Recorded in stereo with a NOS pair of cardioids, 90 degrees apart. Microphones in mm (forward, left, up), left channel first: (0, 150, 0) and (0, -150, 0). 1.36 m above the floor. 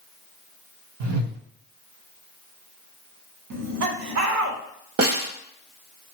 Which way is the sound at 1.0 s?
65° right.